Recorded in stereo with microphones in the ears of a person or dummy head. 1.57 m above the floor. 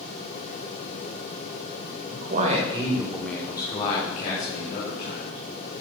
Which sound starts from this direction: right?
A man speaking, at 2.1 s.